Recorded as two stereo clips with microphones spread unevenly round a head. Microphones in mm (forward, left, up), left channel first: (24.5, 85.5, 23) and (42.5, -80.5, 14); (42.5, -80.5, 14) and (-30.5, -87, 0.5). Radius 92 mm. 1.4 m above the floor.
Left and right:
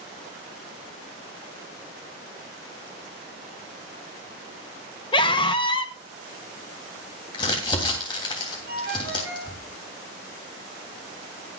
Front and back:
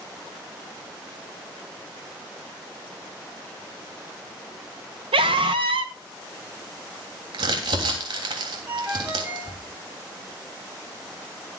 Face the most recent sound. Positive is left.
turn(degrees=-105)